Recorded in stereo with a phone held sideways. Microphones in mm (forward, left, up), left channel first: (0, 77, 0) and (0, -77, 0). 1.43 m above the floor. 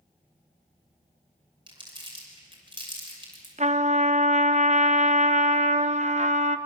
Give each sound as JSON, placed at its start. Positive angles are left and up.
{"t": 1.7, "sound": "crumpling", "side_deg": -30, "distance_m": 6.0}
{"t": 3.6, "sound": "a trumpet", "side_deg": -50, "distance_m": 0.8}